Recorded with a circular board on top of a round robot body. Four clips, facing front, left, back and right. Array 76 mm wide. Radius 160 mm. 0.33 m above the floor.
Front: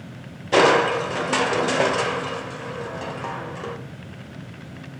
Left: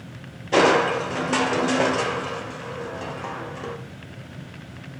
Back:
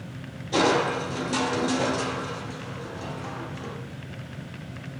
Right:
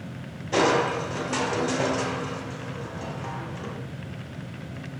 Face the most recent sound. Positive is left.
turn(degrees=25)